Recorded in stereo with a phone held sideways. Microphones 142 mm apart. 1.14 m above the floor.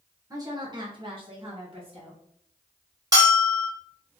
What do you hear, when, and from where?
0.3 s a woman speaking: 25° right (ahead or behind), 1.1 m; by 2.2 s 40° right (ahead or behind), 2.0 m
3.1 s a bell: 25° right (ahead or behind), 2 m